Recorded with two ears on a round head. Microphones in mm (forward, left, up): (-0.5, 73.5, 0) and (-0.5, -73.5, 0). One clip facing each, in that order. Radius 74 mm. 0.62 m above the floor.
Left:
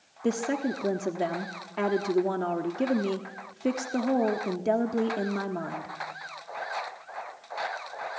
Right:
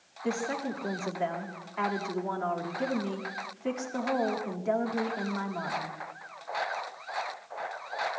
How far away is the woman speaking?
About 1.5 m.